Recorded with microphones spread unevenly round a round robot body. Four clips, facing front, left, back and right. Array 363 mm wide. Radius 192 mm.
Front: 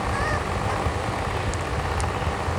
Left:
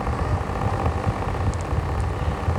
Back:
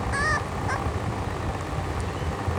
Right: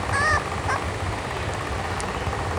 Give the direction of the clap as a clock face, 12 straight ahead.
No clap in this recording.